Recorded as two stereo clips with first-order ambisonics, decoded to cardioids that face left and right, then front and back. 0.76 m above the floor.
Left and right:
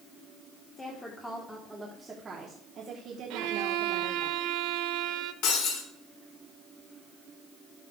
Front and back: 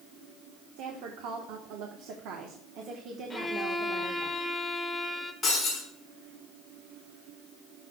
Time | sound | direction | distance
0.8 | a woman speaking | 160° left | 1.5 m
3.3 | a violin | 85° right | 0.7 m
5.4 | breaking glass | 85° left | 5.5 m